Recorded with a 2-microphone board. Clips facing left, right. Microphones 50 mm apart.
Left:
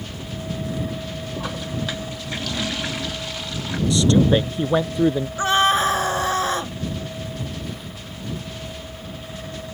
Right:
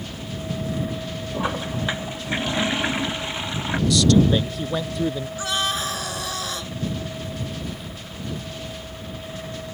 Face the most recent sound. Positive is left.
turn(degrees=35)  # may be behind; listen again after turning